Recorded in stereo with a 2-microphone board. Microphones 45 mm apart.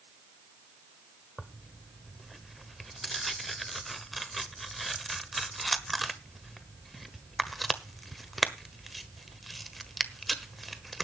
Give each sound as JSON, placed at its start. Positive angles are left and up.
{"t": 1.4, "sound": "tearing paper", "side_deg": 0, "distance_m": 1.3}